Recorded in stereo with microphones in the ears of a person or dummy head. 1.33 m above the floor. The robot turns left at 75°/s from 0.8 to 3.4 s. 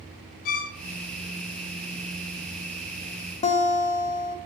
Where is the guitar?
35° left (ahead or behind), 0.6 m.